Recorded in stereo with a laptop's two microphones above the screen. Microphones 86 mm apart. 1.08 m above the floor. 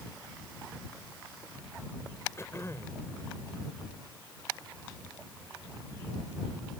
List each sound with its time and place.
2.4 s throat clearing: 30° left (ahead or behind)